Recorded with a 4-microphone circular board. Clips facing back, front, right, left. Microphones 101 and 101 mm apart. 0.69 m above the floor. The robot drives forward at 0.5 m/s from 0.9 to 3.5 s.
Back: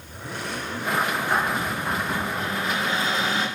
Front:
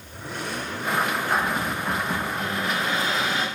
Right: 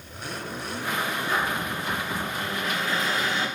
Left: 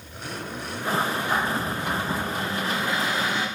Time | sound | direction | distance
1.3 | a cupboard door | 110° left | 4 m